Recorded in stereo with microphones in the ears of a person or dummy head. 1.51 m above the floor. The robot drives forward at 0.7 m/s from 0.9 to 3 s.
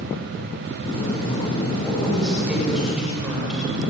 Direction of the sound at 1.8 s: Centre (ahead or behind).